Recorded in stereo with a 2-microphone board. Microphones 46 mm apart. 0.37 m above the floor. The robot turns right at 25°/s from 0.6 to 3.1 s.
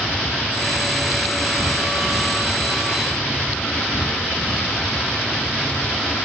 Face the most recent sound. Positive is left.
turn(degrees=145)